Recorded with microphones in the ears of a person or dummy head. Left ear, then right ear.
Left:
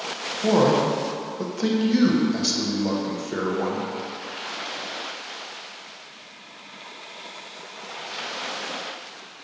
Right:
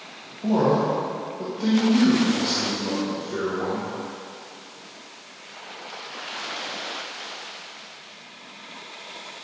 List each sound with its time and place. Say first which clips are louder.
0.4 s a man speaking: left 2 dB; 70° left (ahead or behind), 1.0 m